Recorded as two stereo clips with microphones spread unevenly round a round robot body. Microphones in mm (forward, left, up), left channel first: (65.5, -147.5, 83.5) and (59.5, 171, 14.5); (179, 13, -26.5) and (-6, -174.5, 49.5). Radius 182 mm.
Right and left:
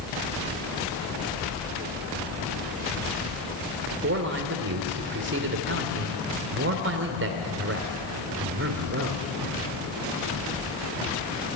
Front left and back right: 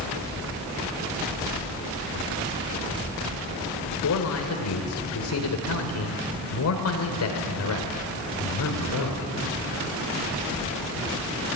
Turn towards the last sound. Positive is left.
turn(degrees=45)